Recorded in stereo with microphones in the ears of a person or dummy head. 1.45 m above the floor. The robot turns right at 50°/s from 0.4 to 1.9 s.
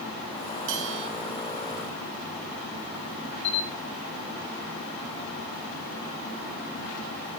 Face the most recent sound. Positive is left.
turn(degrees=40)  # may be behind; listen again after turning